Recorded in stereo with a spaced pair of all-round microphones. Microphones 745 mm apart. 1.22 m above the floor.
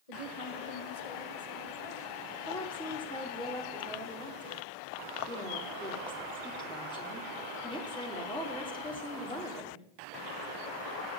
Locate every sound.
0.1 s a woman speaking: 50° left (ahead or behind), 1.9 m; by 2.4 s 40° left (ahead or behind), 5.5 m
2.5 s a woman speaking: 5° left (ahead or behind), 3 m